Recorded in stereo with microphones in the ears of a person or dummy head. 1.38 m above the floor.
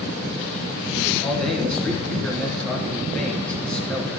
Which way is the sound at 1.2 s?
10° left (ahead or behind).